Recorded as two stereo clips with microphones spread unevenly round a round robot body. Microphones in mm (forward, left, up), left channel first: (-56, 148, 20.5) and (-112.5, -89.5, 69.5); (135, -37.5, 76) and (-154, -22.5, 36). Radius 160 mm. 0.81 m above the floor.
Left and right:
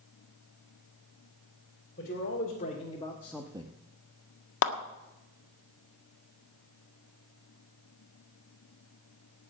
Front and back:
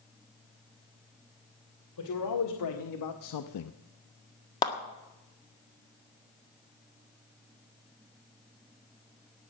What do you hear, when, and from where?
2.0 s a man speaking: 20° left, 2.5 m; by 3.7 s 40° right, 0.6 m
4.6 s a clap: 75° left, 1.7 m